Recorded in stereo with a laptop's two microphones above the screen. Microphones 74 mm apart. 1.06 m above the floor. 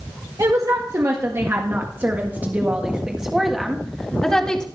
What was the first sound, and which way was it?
A woman speaking, 50° right (ahead or behind).